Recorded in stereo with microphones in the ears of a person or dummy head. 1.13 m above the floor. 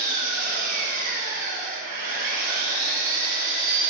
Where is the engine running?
50° right (ahead or behind), 2.5 m.